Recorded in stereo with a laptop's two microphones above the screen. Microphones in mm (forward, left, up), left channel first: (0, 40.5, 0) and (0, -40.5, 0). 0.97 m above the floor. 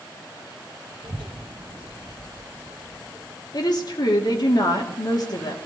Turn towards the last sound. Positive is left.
turn(degrees=55)  # may be behind; listen again after turning